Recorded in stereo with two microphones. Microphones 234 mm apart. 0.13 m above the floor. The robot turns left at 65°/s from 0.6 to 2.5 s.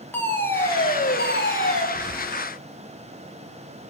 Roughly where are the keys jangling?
Left.